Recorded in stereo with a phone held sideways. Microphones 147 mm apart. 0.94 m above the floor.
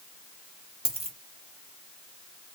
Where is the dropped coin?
40° right (ahead or behind), 1.3 m.